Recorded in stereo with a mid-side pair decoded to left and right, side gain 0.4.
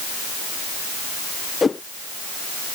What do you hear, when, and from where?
1.6 s a whoosh: 35° left